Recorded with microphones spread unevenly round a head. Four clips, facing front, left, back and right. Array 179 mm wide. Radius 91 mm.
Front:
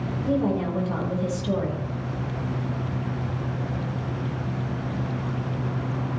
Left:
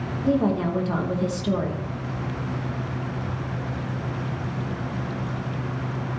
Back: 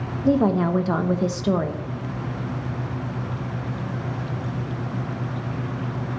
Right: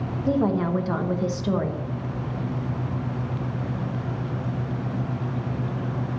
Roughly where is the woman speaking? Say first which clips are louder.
Left 1 dB, back 5 dB; behind.